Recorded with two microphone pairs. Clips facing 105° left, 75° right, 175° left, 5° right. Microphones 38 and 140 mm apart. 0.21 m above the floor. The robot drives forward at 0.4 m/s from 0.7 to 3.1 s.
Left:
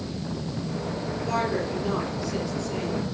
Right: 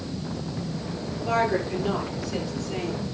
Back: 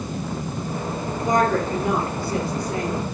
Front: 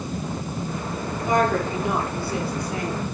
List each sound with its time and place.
1.2 s a woman speaking: 145° right, 5 m; by 3.0 s 150° right, 5.5 m